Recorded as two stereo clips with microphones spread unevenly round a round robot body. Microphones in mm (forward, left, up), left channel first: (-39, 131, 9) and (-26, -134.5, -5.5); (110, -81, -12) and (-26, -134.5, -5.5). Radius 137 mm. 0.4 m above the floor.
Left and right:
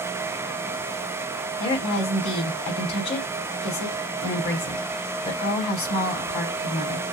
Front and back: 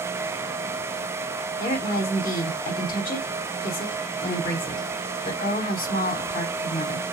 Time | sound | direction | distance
1.6 | a woman speaking | 25° left | 2.5 m